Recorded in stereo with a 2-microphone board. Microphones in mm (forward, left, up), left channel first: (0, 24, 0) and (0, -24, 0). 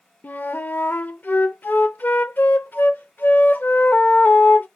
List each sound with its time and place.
0.2 s a flute: 45° left (ahead or behind), 0.7 m